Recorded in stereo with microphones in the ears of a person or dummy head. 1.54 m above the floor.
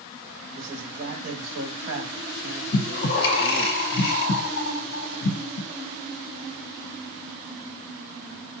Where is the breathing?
60° left (ahead or behind), 0.9 m.